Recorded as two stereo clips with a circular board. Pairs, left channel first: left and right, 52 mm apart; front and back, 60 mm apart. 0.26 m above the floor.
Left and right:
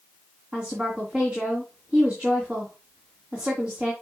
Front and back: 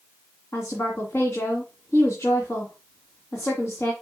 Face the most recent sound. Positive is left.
turn(degrees=-25)